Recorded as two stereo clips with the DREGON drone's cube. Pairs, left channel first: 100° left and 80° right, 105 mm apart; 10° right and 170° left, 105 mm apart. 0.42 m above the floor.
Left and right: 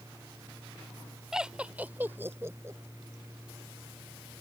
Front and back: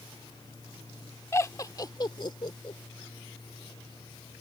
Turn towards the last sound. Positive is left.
turn(degrees=-25)